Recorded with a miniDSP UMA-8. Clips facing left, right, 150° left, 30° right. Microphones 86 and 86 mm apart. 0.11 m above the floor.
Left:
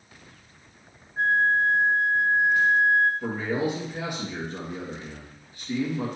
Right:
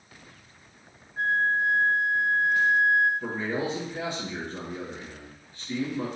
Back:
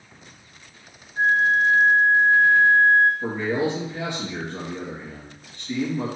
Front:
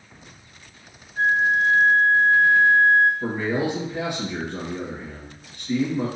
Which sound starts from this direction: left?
A flute, at 1.2 s.